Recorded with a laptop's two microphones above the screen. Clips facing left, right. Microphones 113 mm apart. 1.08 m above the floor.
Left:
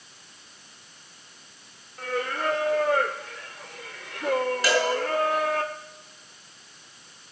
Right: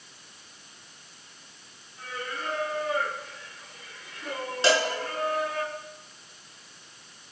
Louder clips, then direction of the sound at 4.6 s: Right 2 dB; 25° right (ahead or behind).